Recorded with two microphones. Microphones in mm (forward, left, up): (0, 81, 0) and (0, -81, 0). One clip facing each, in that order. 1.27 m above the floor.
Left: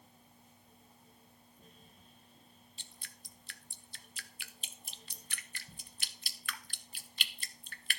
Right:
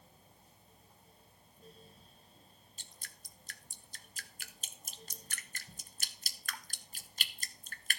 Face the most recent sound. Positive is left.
turn(degrees=-45)  # may be behind; listen again after turning